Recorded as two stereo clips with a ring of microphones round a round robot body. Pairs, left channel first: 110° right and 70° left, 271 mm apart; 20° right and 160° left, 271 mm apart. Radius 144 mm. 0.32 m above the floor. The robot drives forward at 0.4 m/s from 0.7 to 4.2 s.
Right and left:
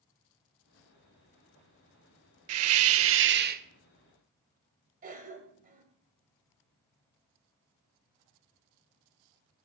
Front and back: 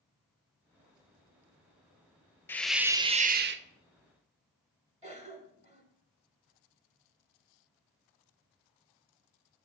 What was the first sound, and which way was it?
A hiss, 60° left.